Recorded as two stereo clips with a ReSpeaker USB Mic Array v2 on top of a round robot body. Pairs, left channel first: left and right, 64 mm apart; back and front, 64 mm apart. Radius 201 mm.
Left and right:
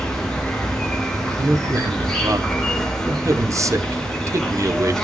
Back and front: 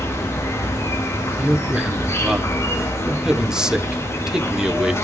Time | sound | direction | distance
0.0 | an insect | 165° left | 2.5 m
1.4 | a man speaking | 80° right | 1.3 m